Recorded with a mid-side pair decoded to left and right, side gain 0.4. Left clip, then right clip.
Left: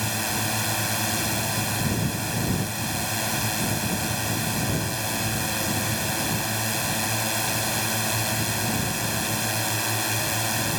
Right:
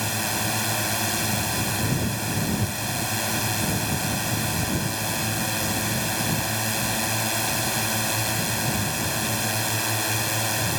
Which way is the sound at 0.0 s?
Straight ahead.